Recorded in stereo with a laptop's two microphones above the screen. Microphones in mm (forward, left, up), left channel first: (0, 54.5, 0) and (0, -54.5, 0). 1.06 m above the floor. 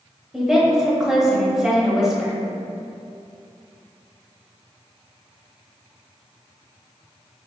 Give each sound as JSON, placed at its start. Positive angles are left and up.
{"t": 0.3, "sound": "a woman speaking", "side_deg": -5, "distance_m": 1.3}